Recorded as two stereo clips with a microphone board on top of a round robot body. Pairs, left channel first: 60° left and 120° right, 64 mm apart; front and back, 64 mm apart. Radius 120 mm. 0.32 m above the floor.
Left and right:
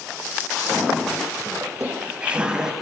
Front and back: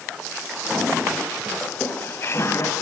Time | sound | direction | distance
1.6 | laughter | 60° right | 2 m